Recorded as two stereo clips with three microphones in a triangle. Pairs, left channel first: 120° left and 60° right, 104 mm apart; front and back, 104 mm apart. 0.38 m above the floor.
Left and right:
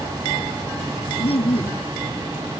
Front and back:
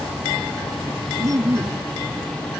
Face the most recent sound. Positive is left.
turn(degrees=125)